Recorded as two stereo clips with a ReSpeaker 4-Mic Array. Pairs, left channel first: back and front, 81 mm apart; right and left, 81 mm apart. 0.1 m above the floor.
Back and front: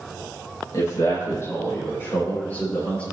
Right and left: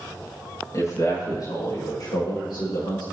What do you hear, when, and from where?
0.7 s a man speaking: 135° right, 4.5 m; by 3.0 s 105° right, 6 m